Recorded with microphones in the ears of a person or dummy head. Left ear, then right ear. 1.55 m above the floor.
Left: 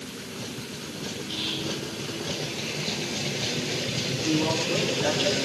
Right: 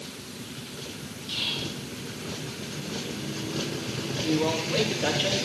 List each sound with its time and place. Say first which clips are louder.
1.3 s whispering: right 1 dB; 55° right (ahead or behind), 5.5 m
4.2 s a woman speaking: even; 15° right (ahead or behind), 3.5 m